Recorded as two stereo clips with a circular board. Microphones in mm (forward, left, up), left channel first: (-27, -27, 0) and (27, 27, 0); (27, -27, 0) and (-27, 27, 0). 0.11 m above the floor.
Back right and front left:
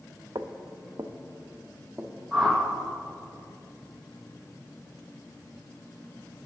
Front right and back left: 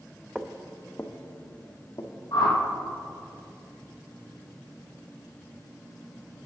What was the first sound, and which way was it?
Footsteps, 60° left.